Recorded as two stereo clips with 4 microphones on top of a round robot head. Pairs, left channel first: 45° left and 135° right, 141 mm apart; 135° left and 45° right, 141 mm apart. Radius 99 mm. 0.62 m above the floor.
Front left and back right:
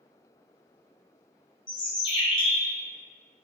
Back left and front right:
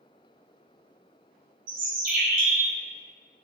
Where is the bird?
15° right, 0.6 m.